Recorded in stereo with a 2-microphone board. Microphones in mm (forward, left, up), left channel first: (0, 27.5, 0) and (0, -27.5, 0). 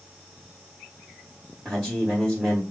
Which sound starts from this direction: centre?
A man speaking, at 1.6 s.